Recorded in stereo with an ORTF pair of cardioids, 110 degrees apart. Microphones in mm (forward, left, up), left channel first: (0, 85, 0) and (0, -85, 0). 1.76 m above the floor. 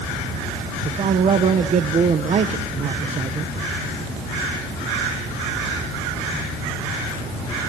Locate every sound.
0.8 s a man speaking: 40° right, 1.4 m